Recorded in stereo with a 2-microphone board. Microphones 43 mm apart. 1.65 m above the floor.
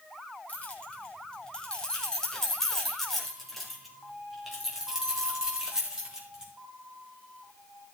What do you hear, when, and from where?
0.5 s keys jangling: 30° left (ahead or behind), 4.5 m; by 6.5 s 15° right (ahead or behind), 7.5 m